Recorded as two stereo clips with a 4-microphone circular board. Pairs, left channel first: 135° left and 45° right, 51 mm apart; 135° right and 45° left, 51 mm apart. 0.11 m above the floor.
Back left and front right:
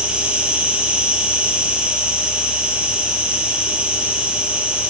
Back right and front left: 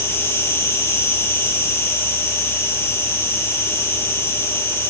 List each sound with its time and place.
0.0 s an insect: 105° right, 6 m